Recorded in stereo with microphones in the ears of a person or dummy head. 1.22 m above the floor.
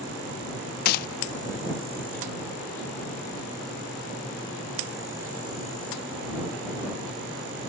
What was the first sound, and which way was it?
A gunshot, 50° left (ahead or behind).